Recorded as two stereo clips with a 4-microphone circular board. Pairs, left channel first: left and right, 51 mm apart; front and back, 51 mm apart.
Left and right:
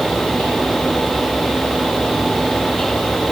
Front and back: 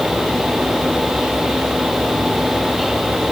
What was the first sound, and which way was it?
Only background noise.